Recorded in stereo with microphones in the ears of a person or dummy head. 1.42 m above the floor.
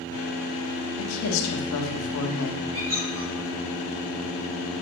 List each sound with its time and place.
1.0 s a woman speaking: 85° left, 1.6 m
2.7 s a squeak: 45° right (ahead or behind), 4 m